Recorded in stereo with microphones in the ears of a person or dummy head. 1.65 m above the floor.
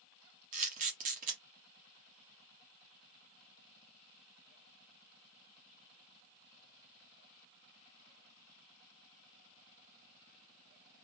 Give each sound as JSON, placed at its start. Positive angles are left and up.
{"t": 0.5, "sound": "a camera shutter", "side_deg": -45, "distance_m": 1.2}